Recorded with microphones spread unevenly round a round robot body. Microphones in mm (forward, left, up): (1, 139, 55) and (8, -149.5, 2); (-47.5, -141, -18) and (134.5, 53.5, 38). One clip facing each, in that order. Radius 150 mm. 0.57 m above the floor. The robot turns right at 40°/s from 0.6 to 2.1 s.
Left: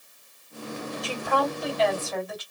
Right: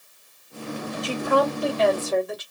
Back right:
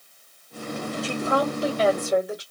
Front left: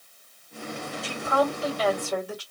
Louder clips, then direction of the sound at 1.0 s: Right 6 dB, back right 1 dB; 115° right.